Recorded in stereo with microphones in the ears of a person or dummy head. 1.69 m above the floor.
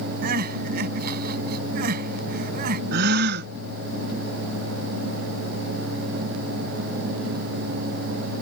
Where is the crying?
55° right (ahead or behind).